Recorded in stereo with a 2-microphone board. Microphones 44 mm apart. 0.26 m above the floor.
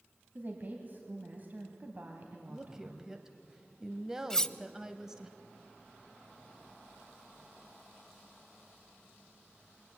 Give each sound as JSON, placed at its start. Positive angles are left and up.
{"t": 0.3, "sound": "a woman speaking", "side_deg": -40, "distance_m": 2.0}
{"t": 2.5, "sound": "a woman speaking", "side_deg": -15, "distance_m": 1.0}
{"t": 4.3, "sound": "cutlery clinking", "side_deg": 10, "distance_m": 0.5}